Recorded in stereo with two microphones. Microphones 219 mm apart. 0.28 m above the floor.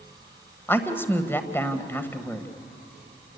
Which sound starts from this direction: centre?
A woman speaking, at 0.7 s.